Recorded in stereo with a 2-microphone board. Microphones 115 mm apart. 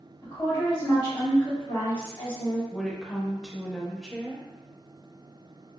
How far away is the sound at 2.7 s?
About 0.6 m.